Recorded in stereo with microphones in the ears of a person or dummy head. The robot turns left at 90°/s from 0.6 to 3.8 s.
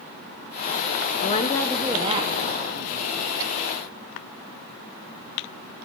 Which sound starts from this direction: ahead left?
A woman speaking, at 1.2 s.